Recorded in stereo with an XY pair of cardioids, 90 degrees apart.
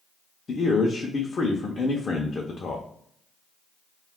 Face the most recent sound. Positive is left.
turn(degrees=45)